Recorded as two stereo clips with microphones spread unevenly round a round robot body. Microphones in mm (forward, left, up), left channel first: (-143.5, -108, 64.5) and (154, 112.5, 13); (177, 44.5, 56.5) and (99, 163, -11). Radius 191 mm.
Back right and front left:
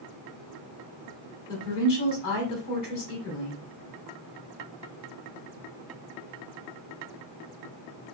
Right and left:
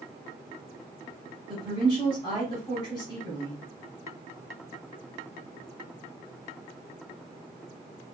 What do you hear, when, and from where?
1.5 s a woman speaking: 145° right, 1.3 m